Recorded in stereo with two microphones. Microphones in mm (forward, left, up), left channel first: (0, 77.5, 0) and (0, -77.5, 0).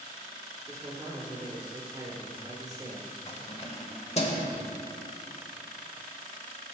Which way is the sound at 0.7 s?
25° right (ahead or behind).